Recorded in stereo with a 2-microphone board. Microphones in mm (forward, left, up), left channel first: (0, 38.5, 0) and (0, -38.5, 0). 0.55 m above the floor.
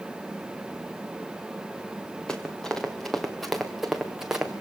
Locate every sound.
2.3 s running footsteps: 10° left (ahead or behind), 3 m; by 4.5 s 10° right (ahead or behind), 2.5 m